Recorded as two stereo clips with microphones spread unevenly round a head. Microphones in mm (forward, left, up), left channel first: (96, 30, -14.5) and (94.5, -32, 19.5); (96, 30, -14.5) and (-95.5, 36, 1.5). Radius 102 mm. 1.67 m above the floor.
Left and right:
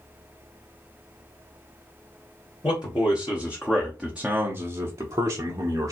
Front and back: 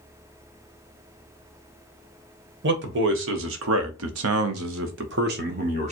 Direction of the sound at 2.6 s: 150° left.